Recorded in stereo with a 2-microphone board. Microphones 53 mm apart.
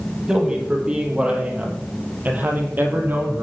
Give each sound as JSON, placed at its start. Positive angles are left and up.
{"t": 0.3, "sound": "a man speaking", "side_deg": -15, "distance_m": 4.5}